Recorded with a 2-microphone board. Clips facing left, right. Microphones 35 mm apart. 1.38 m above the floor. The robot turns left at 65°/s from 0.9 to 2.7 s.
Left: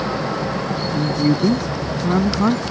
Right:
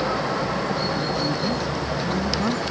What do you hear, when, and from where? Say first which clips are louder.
0.9 s a man speaking: left 6 dB; 125° left; by 2.6 s 15° left